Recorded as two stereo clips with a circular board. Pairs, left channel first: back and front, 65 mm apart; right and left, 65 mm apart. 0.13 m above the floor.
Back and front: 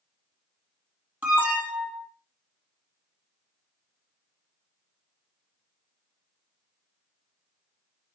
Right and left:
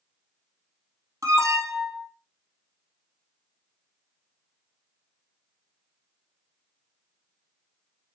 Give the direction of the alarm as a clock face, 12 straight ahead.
10 o'clock.